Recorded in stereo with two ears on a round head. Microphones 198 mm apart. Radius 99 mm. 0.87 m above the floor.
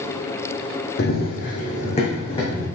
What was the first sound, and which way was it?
Running footsteps, 50° left (ahead or behind).